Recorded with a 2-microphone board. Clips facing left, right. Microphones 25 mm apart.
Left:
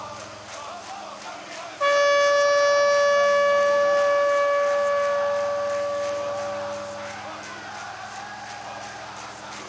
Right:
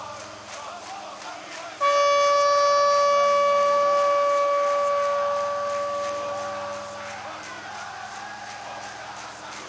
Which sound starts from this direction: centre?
A trumpet, at 1.8 s.